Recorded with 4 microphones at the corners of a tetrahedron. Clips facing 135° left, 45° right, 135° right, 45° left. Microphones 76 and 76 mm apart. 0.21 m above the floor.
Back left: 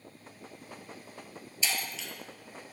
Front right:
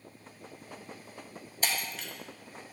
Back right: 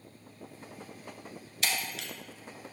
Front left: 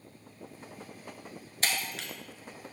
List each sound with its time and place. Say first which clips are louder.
1.6 s breaking glass: front right 1 dB, front left 1 dB; 5° right, 0.8 m